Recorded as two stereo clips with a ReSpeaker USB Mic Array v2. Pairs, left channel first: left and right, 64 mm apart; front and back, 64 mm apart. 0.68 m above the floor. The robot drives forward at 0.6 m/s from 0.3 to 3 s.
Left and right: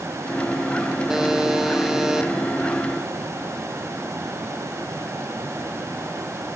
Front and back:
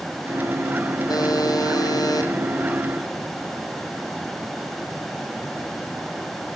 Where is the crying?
I don't hear crying.